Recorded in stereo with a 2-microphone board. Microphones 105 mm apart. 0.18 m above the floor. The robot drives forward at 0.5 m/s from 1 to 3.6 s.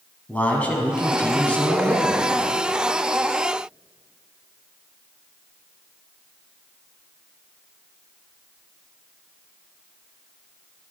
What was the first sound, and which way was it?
A man speaking, 15° left (ahead or behind).